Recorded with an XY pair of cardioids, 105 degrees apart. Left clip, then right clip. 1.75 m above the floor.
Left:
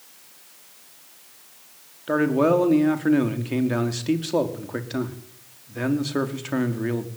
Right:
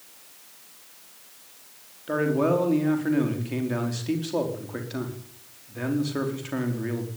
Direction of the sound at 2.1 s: 30° left.